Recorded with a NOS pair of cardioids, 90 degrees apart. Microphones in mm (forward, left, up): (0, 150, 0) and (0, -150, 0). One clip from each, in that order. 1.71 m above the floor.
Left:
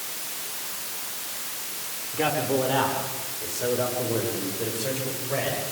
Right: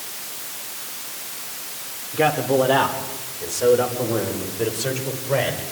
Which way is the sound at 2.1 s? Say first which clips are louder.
Right 6 dB; 30° right.